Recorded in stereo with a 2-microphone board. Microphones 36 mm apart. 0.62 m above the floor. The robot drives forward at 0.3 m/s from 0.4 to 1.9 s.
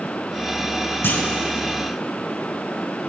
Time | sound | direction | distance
1.0 | a clunk | 65° left (ahead or behind) | 1.4 m